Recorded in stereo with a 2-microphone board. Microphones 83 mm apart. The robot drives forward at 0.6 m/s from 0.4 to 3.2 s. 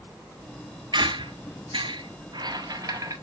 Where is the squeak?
65° right (ahead or behind), 1.0 m; by 3.1 s 40° right (ahead or behind), 1.3 m.